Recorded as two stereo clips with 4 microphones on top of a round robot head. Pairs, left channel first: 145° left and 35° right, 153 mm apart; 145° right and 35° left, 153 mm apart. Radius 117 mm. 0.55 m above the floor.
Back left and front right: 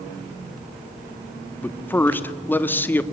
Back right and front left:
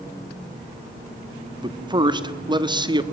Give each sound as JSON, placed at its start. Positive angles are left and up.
{"t": 1.6, "sound": "a man speaking", "azimuth_deg": 75, "distance_m": 1.5}